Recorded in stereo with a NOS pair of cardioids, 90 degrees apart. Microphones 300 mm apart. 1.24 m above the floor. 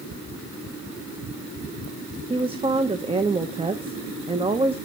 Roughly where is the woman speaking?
Ahead.